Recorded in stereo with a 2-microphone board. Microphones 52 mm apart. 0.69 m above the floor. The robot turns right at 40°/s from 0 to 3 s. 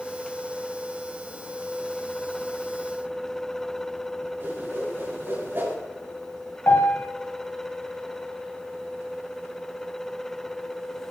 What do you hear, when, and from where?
4.4 s a whoosh: 40° right (ahead or behind), 5.5 m
6.7 s a piano: 45° left (ahead or behind), 1.8 m